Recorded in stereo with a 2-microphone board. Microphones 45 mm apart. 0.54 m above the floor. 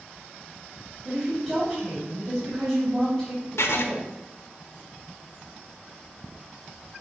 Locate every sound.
1.1 s a woman speaking: 10° right (ahead or behind), 3 m
3.6 s writing: 70° left (ahead or behind), 0.7 m